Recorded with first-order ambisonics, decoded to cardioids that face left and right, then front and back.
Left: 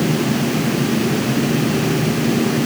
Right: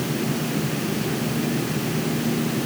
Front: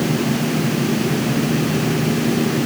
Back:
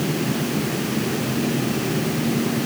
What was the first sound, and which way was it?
Only background noise.